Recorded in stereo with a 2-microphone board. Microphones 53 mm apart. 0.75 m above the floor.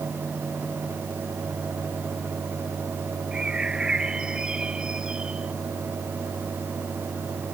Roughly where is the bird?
Centre.